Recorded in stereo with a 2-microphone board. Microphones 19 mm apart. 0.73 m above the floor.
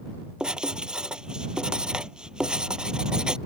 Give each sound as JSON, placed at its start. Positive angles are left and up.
{"t": 0.4, "sound": "writing", "side_deg": -40}